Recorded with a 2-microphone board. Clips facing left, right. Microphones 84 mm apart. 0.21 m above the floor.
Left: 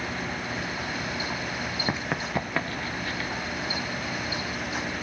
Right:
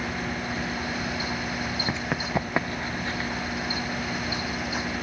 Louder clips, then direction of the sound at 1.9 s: Even; 15° left (ahead or behind).